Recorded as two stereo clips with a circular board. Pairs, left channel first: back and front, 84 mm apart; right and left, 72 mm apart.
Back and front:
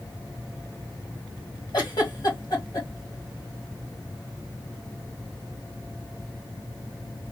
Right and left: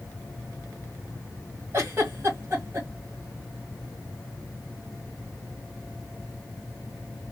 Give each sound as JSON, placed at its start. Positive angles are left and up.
{"t": 1.7, "sound": "a giggle", "azimuth_deg": 145, "distance_m": 1.9}